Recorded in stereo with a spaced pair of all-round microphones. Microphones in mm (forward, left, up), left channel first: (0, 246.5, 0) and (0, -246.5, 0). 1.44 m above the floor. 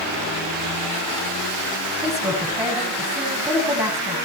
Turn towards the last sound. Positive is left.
turn(degrees=-10)  # may be behind; listen again after turning